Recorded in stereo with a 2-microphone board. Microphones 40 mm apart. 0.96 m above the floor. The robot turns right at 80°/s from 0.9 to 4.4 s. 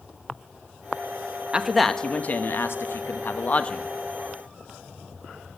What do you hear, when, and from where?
1.5 s a man speaking: 20° right, 0.8 m; by 3.8 s 165° left, 0.8 m